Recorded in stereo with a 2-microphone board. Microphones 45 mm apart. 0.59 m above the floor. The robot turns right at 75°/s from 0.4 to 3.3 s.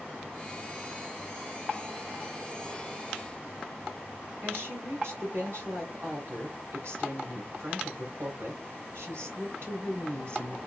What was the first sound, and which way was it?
A woman speaking, 70° right (ahead or behind).